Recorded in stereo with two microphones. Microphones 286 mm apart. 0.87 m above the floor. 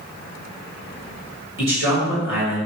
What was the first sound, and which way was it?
A man speaking, 45° left (ahead or behind).